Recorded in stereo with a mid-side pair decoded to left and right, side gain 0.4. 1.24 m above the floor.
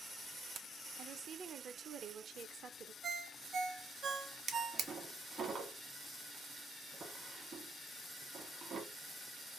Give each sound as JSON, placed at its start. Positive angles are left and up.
{"t": 1.0, "sound": "a woman speaking", "azimuth_deg": -65, "distance_m": 0.7}
{"t": 3.0, "sound": "a ringtone", "azimuth_deg": -65, "distance_m": 0.7}
{"t": 4.5, "sound": "a drawer", "azimuth_deg": -60, "distance_m": 1.3}